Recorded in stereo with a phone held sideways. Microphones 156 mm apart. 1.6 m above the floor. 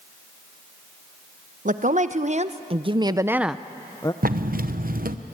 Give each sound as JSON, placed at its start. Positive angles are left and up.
{"t": 1.6, "sound": "a woman speaking", "side_deg": -55, "distance_m": 1.1}
{"t": 4.2, "sound": "a zipper", "side_deg": -70, "distance_m": 0.8}